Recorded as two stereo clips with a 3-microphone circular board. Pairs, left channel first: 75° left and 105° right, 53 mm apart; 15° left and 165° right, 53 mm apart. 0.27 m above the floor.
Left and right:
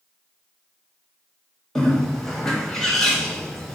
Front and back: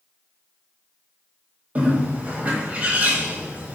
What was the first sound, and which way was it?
A bird, 155° left.